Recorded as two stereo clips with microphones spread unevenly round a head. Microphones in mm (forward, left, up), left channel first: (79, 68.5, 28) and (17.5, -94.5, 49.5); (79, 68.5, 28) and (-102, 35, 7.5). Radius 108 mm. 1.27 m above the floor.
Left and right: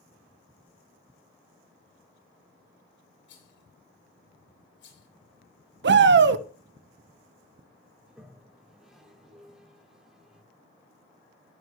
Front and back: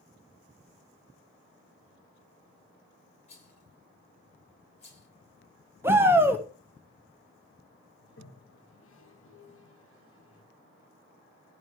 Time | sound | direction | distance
3.3 | a rattle | 65° left | 7 m
5.8 | a shout | 90° right | 1.2 m
8.0 | a toilet flushing | 20° right | 2.0 m